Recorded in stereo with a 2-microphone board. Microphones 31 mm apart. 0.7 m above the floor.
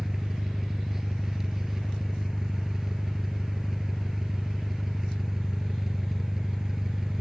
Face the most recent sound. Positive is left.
turn(degrees=-15)  # may be behind; listen again after turning